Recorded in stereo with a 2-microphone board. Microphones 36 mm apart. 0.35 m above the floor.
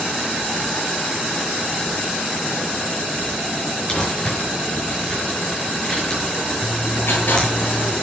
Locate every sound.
3.9 s crumpling: 25° left (ahead or behind), 5.5 m
6.6 s writing: 70° left (ahead or behind), 7 m